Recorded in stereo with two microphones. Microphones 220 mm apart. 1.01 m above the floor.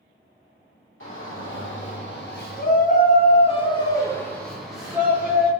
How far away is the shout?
About 1.9 m.